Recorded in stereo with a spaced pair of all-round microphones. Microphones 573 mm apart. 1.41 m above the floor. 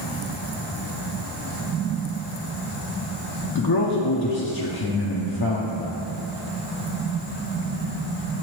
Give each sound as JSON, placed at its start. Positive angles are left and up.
{"t": 3.5, "sound": "a man speaking", "side_deg": 40, "distance_m": 0.7}